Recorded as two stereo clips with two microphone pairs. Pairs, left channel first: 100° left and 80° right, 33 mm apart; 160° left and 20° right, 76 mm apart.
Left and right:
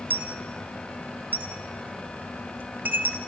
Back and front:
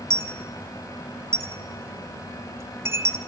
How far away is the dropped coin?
About 1.3 m.